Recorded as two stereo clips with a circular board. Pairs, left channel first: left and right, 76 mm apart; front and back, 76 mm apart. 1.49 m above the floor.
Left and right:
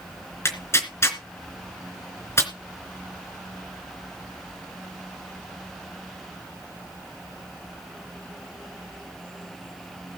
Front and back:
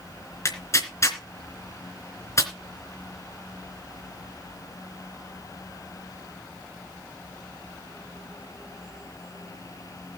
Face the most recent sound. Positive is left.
turn(degrees=40)